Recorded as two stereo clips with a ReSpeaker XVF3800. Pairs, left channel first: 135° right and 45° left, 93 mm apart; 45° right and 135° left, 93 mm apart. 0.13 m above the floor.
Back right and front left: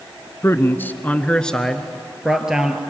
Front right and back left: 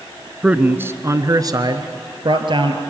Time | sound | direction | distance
0.4 | a man speaking | 155° right | 1.2 m